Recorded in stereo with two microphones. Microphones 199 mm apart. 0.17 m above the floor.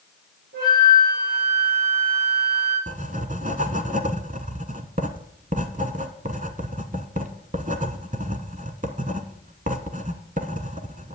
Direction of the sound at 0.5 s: 75° right (ahead or behind).